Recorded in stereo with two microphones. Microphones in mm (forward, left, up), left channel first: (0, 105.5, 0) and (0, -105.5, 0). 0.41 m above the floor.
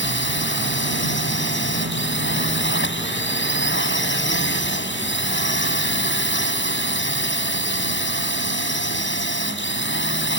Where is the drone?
65° left (ahead or behind).